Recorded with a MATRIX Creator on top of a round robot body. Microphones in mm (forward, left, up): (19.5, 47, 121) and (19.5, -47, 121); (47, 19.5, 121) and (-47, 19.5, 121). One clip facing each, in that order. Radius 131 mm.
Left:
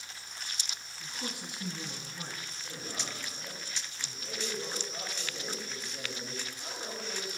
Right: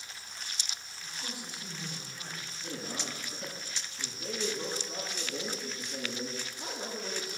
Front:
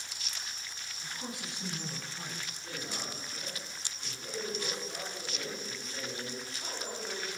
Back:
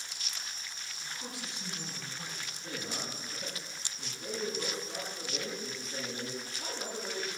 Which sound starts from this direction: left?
A man speaking, at 1.0 s.